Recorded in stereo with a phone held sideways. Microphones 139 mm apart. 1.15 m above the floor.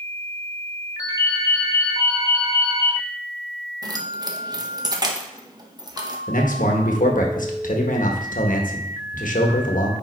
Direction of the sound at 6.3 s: 70° left (ahead or behind).